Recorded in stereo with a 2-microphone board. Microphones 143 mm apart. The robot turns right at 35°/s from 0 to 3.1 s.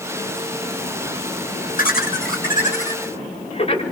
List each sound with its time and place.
1.8 s laughter: 85° left, 6.5 m; by 3.8 s 45° left (ahead or behind), 6.5 m